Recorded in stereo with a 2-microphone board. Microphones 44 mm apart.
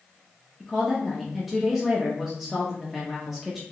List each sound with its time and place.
0.6 s a woman speaking: 5° right (ahead or behind), 0.7 m